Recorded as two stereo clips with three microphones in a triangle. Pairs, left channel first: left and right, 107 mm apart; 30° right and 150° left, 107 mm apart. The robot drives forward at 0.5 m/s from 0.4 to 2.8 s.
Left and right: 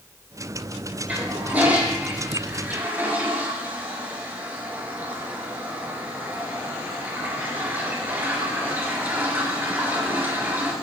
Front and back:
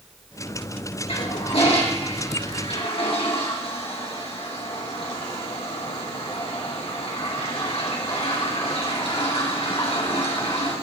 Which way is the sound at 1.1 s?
15° right.